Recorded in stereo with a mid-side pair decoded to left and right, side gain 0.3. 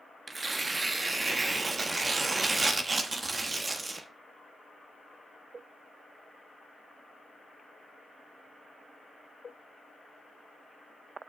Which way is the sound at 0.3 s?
40° right.